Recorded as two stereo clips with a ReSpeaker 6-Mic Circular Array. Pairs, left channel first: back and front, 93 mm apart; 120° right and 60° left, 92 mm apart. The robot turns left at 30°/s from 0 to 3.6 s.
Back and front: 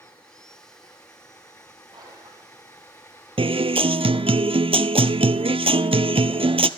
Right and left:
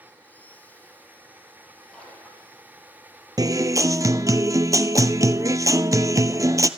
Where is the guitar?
15° left, 0.6 m; by 6.7 s 5° left, 0.6 m.